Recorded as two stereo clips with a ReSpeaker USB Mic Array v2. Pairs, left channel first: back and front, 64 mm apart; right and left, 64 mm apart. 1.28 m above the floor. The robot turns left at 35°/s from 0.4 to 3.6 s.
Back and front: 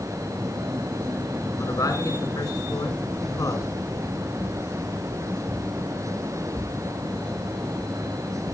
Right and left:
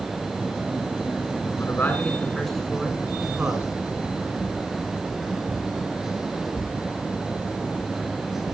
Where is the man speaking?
140° right, 6 m; by 3.7 s 150° left, 6 m.